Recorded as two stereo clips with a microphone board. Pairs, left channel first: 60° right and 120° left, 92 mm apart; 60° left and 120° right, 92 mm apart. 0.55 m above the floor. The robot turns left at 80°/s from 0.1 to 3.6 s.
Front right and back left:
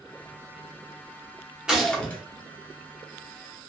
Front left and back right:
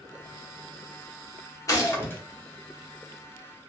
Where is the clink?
No clink in this recording.